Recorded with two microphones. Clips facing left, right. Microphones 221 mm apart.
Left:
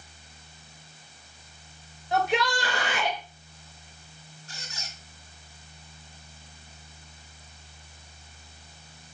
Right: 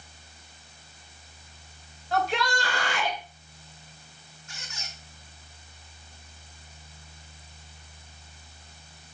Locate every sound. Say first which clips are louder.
2.1 s a shout: left 2 dB; 20° left (ahead or behind), 1.1 m
4.5 s a squeak: even; 35° left (ahead or behind), 2.5 m